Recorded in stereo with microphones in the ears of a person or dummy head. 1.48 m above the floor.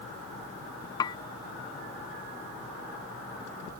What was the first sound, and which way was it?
Dishes clattering, 30° left (ahead or behind).